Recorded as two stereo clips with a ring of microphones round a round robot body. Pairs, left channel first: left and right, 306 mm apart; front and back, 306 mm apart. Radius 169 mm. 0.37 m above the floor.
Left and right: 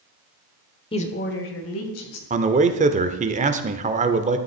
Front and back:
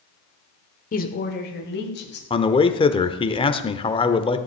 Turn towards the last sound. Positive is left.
turn(degrees=-55)